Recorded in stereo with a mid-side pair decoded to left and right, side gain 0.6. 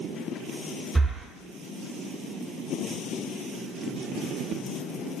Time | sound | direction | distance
0.9 | breathing | 5° right | 0.6 m